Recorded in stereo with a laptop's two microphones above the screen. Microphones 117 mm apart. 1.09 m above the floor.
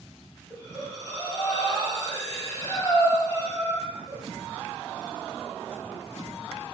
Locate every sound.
0.5 s breathing: 25° left (ahead or behind), 1.7 m